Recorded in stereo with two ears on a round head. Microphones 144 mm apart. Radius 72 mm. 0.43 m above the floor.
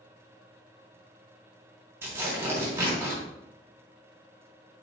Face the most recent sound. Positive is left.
turn(degrees=-15)  # may be behind; listen again after turning